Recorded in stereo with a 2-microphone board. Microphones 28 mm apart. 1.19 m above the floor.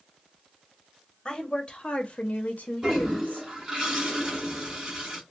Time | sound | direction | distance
1.2 | a woman speaking | 25° left (ahead or behind) | 1.2 m
2.8 | a toilet flushing | 20° right (ahead or behind) | 2 m